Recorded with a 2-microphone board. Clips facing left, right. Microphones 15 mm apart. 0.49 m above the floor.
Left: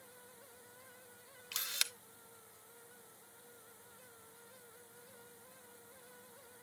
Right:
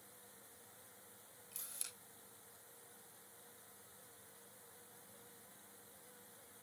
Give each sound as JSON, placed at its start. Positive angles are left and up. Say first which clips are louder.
{"t": 1.5, "sound": "a camera shutter", "louder": "left 16 dB", "side_deg": 80, "distance_m": 0.7}